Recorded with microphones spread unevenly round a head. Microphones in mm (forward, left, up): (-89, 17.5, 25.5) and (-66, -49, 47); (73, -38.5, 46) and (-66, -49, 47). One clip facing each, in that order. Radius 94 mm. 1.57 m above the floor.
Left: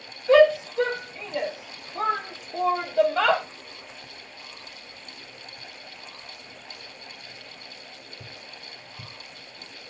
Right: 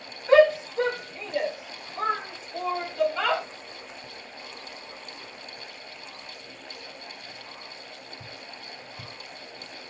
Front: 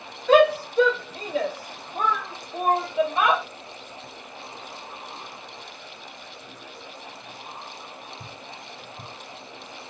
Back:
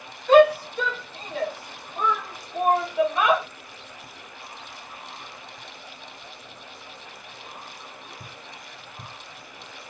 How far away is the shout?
About 1.5 m.